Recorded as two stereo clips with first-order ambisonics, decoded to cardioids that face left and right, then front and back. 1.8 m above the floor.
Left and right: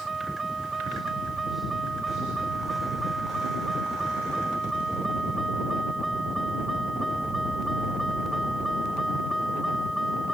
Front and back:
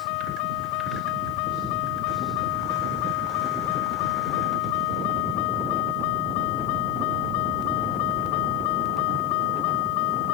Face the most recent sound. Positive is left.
turn(degrees=5)